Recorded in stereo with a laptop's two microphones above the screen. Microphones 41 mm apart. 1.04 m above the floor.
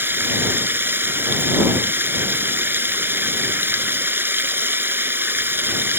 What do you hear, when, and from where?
0.0 s running water: 65° right (ahead or behind)